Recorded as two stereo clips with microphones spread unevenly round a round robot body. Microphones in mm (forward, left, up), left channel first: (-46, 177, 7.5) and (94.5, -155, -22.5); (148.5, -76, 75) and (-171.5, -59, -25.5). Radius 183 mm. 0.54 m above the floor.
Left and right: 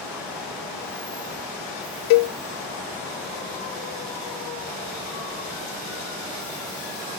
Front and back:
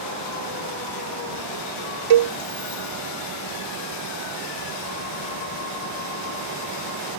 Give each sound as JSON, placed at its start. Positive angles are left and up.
{"t": 2.1, "sound": "a cowbell", "azimuth_deg": 150}